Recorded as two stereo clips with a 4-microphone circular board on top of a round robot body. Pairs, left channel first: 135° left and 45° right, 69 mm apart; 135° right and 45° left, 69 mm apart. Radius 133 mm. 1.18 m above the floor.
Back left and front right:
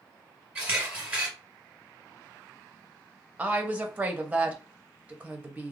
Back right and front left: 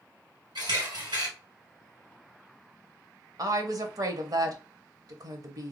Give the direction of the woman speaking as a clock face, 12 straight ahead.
11 o'clock.